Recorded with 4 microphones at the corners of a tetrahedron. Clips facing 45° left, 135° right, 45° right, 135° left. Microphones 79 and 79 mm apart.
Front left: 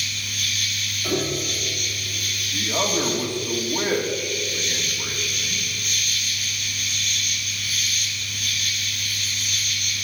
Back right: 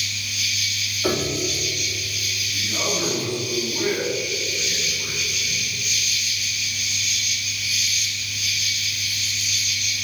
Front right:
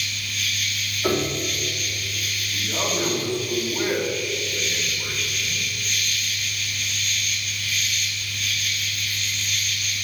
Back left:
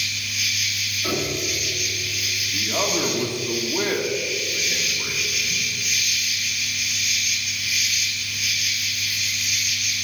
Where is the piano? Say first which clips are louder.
Back right 2 dB, front right 3 dB; 105° right, 2.5 m.